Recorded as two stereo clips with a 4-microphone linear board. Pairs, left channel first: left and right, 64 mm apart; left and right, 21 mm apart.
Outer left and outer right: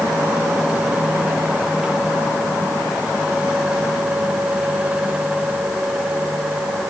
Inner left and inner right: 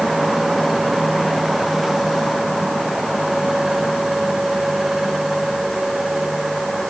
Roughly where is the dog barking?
No dog barking in this recording.